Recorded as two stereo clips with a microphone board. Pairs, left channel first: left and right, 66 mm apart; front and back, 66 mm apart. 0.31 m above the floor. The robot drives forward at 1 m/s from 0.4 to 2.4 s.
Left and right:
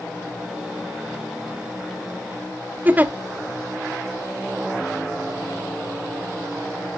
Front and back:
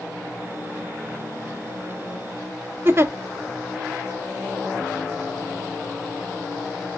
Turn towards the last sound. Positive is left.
turn(degrees=-145)